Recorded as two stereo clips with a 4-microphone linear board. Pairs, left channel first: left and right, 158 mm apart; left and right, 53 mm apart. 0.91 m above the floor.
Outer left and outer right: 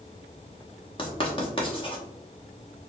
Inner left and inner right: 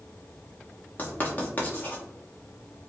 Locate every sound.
1.0 s writing: 35° left (ahead or behind), 0.9 m